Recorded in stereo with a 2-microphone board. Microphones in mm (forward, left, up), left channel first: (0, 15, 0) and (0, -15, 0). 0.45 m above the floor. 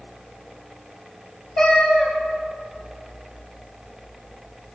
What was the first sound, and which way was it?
A cat meowing, 15° left (ahead or behind).